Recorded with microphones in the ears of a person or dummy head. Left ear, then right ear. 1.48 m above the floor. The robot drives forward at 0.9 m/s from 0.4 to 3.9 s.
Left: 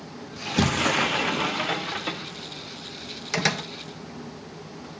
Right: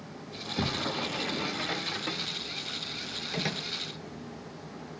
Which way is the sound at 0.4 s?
65° left (ahead or behind).